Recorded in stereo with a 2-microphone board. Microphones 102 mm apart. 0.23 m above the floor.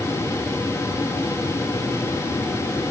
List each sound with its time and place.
Only background noise.